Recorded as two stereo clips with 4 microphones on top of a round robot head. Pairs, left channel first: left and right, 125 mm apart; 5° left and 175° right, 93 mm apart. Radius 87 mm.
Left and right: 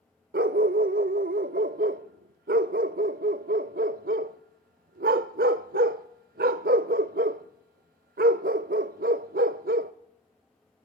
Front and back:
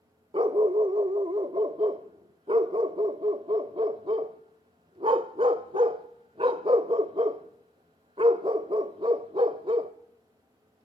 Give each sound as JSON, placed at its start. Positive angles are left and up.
{"t": 0.3, "sound": "a dog barking", "azimuth_deg": -120, "distance_m": 0.6}